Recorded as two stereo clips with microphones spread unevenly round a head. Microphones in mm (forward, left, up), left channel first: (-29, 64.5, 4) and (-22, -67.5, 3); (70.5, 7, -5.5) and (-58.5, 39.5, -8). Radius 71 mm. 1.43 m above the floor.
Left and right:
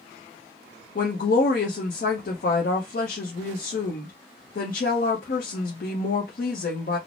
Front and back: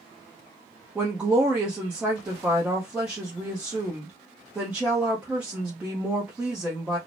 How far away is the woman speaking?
About 0.6 m.